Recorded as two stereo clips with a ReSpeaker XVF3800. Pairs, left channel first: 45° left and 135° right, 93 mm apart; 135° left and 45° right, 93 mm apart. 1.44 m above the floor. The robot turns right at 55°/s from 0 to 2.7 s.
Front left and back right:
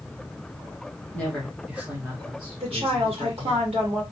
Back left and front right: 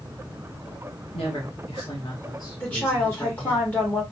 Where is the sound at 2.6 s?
155° right, 2 m; by 4.0 s 150° right, 2 m.